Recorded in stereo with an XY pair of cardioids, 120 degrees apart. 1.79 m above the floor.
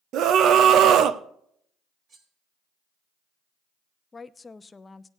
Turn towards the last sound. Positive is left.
turn(degrees=20)